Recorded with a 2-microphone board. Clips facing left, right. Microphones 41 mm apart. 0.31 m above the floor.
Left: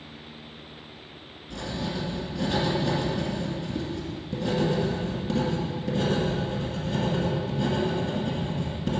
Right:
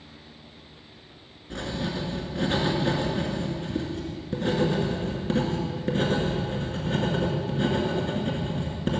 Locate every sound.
1.5 s writing: 45° right (ahead or behind), 1.9 m